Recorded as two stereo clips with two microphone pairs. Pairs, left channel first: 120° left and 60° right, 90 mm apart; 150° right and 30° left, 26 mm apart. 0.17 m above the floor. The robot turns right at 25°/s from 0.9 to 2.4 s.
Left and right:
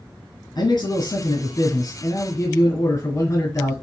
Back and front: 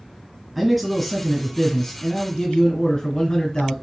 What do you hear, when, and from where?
0.6 s a man speaking: 110° left, 1.5 m; by 3.7 s 150° left, 1.5 m